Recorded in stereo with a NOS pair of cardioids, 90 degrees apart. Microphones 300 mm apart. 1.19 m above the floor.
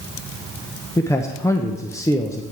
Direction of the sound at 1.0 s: 10° left.